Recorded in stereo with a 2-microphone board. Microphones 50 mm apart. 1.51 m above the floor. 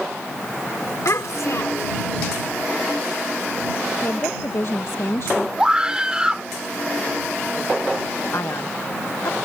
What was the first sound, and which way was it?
A child speaking, 75° left (ahead or behind).